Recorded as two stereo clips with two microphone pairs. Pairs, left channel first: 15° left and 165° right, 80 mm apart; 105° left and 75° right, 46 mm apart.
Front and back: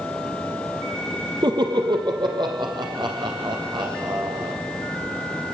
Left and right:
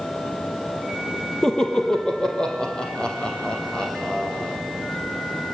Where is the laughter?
Straight behind, 4 m; by 4.5 s 170° left, 7.5 m.